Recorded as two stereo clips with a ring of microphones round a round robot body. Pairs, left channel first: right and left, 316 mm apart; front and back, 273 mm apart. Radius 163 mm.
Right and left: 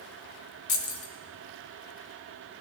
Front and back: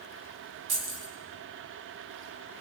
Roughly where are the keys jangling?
Behind right.